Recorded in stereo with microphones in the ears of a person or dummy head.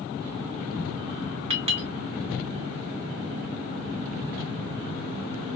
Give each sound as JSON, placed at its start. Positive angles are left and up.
{"t": 1.5, "sound": "a clink", "side_deg": -35, "distance_m": 1.8}